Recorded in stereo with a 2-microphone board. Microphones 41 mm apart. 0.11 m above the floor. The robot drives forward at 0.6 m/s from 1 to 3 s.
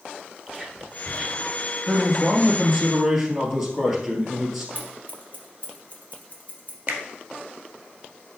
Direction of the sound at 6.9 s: 45° right (ahead or behind).